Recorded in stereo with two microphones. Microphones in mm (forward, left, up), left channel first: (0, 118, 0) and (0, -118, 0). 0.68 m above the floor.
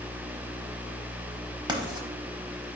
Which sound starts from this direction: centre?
Writing, at 1.7 s.